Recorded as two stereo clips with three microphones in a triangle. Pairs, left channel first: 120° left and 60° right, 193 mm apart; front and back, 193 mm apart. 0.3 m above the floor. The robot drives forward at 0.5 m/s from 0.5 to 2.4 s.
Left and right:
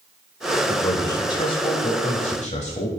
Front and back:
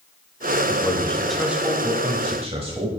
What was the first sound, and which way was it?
A man speaking, 55° left.